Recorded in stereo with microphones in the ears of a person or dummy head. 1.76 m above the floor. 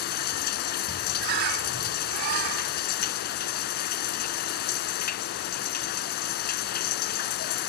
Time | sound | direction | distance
0.0 | running water | 55° left (ahead or behind) | ?
1.2 | a bird | 60° right (ahead or behind) | ?